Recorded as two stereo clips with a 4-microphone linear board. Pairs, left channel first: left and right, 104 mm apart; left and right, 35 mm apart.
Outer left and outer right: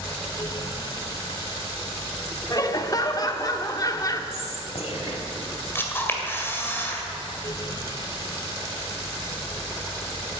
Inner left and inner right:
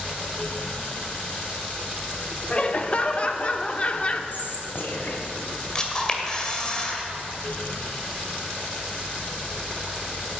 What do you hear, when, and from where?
2.5 s laughter: 35° left (ahead or behind), 0.9 m
4.3 s whispering: 70° left (ahead or behind), 2.5 m
5.8 s a camera shutter: 20° left (ahead or behind), 1.8 m